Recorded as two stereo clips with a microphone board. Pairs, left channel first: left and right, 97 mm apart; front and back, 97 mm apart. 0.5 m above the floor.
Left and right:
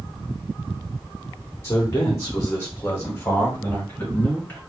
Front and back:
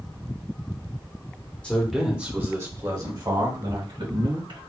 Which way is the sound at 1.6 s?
60° left.